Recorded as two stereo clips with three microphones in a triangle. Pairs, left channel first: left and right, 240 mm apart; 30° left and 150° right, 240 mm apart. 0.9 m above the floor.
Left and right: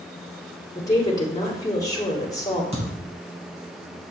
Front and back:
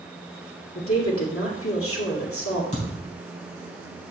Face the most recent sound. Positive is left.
turn(degrees=-30)